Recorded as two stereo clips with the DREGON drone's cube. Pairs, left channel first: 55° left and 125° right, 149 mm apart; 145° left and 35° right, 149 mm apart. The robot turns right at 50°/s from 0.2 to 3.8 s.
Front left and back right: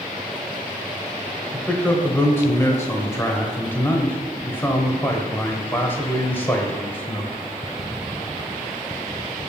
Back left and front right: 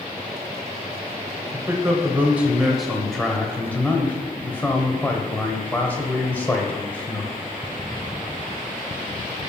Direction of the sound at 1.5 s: 15° right.